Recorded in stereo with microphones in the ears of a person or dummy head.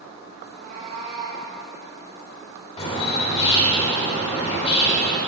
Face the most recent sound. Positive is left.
turn(degrees=30)  # may be behind; listen again after turning